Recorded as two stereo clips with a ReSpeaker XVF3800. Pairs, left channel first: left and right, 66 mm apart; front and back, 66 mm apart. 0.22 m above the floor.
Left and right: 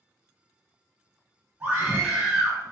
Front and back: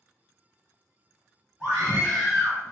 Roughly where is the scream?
Right.